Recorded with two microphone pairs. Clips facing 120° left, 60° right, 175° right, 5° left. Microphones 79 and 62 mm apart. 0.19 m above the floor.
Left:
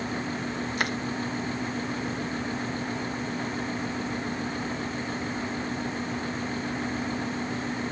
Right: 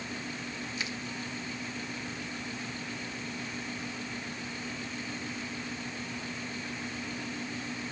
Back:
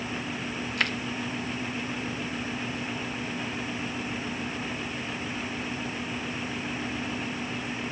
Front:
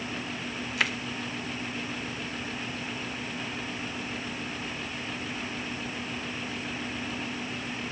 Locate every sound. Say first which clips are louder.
0.8 s crushing: left 11 dB, even; 90° left